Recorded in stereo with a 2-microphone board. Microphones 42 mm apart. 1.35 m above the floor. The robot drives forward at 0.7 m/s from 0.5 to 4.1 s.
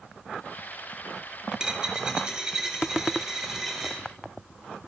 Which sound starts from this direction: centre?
A dropped coin, at 1.5 s.